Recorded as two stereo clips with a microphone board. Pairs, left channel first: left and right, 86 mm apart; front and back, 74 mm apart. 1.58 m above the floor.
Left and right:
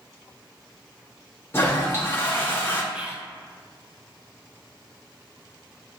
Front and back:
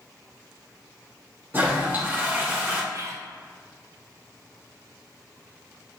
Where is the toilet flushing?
135° left, 0.7 m.